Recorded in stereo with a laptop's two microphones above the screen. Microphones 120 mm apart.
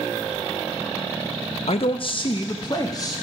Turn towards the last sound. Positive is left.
turn(degrees=30)  # may be behind; listen again after turning